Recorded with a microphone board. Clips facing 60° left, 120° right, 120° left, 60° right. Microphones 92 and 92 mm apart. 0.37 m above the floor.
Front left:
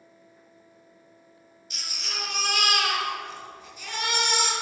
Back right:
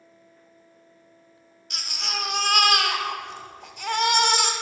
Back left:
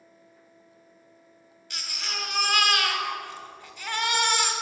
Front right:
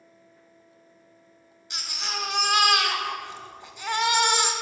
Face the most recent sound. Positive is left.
turn(degrees=-130)